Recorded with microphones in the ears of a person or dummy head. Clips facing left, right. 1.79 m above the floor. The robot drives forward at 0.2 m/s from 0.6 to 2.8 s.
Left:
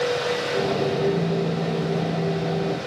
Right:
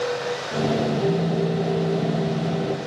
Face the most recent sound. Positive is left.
turn(degrees=-45)  # may be behind; listen again after turning